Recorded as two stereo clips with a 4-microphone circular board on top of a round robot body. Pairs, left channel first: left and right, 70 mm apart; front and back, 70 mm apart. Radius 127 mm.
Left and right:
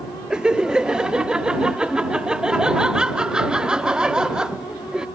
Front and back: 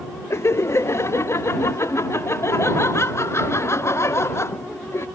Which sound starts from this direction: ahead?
Laughter, at 0.3 s.